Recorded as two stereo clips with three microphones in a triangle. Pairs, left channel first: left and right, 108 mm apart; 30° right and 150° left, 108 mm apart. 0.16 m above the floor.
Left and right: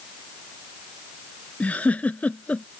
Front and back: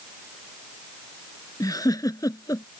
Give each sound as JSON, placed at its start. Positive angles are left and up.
{"t": 1.6, "sound": "a giggle", "azimuth_deg": 15}